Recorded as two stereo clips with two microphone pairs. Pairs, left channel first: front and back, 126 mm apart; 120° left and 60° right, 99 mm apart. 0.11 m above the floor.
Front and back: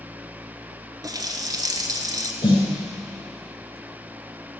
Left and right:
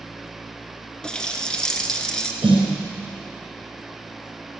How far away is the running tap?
About 1.2 m.